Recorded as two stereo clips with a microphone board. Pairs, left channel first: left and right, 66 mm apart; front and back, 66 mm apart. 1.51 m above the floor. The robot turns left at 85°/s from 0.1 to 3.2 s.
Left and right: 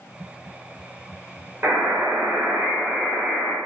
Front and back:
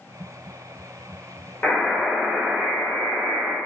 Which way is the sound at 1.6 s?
60° right.